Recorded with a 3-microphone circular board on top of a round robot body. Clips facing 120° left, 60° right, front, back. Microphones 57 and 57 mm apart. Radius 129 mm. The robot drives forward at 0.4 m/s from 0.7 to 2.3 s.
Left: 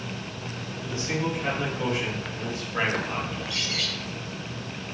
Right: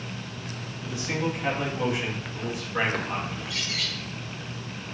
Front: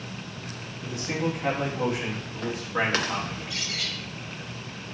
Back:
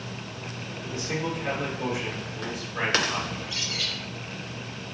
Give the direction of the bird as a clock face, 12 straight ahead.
11 o'clock.